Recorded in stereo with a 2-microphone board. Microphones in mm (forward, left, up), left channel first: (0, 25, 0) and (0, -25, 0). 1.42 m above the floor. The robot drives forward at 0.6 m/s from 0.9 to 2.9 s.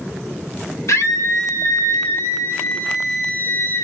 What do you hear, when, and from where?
0.9 s a scream: 80° left, 1.9 m; by 3.8 s 55° left (ahead or behind), 2 m